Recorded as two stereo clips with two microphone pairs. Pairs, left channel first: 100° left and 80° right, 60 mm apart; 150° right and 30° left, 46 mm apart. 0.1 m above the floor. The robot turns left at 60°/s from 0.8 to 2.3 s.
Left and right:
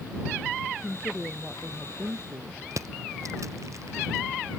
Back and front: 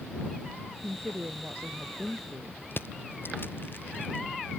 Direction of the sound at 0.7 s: 40° left.